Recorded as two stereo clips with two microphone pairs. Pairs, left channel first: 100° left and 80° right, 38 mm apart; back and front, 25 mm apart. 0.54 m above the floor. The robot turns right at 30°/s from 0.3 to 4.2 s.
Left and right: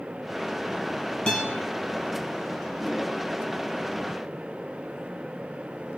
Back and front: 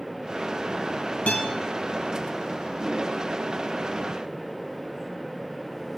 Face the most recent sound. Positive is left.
turn(degrees=-110)